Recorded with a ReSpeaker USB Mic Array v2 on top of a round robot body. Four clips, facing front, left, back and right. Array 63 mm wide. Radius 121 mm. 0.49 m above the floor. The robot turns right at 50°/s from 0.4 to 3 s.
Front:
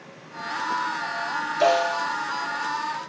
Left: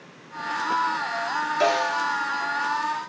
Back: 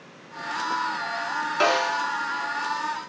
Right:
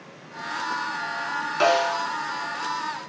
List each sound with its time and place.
1.6 s a snare drum: 145° right, 3.5 m; by 2.1 s 120° right, 3.5 m